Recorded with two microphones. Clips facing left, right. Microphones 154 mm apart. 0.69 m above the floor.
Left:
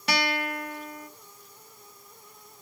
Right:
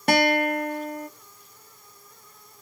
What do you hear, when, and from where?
0.1 s a guitar: 50° right (ahead or behind), 0.7 m